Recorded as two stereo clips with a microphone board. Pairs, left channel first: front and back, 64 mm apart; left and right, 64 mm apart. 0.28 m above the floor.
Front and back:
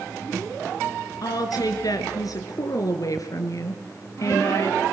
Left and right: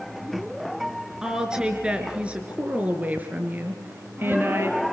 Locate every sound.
1.2 s a woman speaking: 10° right, 4 m; by 4.9 s 40° right, 4.5 m